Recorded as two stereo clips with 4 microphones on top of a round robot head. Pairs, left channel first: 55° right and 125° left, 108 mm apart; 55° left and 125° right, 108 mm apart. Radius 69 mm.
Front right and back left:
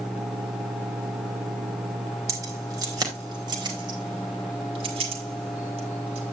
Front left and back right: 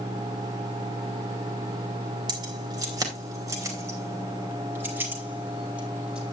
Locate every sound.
2.3 s keys jangling: 175° right, 3.5 m; by 6.3 s 150° left, 3.5 m